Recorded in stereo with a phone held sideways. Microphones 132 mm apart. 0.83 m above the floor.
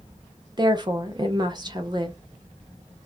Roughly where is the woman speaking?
Right.